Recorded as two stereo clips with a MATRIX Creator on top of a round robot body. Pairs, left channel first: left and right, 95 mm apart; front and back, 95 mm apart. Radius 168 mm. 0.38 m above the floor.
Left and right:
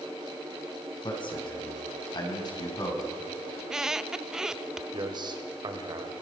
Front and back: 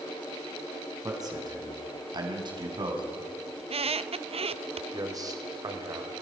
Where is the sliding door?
I don't hear a sliding door.